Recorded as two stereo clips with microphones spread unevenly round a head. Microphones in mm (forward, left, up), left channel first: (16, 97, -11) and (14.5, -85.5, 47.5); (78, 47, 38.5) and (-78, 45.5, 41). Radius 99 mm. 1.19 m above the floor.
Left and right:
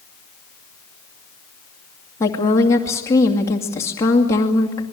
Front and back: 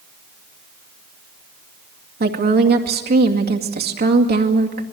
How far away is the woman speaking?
About 2 m.